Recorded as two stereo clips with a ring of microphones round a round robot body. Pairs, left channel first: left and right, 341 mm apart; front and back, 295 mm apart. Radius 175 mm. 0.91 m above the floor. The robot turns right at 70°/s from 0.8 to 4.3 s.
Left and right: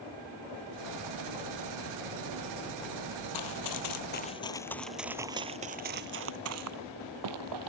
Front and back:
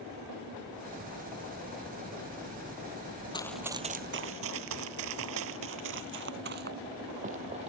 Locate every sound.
3.3 s running footsteps: 70° left; by 7.7 s 110° right